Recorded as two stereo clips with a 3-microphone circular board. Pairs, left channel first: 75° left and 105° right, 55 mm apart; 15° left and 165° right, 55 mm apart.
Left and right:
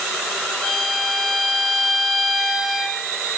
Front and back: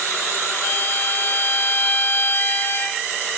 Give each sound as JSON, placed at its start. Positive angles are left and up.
{"t": 0.6, "sound": "a violin", "azimuth_deg": -10, "distance_m": 2.5}